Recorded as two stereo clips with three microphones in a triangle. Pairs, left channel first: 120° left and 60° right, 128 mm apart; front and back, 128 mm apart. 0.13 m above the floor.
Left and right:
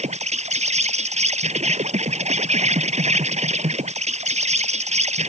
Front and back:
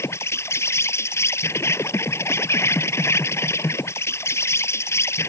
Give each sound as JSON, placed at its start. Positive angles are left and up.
{"t": 0.0, "sound": "an insect", "azimuth_deg": -70}